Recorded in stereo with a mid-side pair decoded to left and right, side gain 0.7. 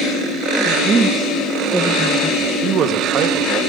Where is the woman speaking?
40° right, 1.4 m; by 2.3 s 10° left, 1.1 m.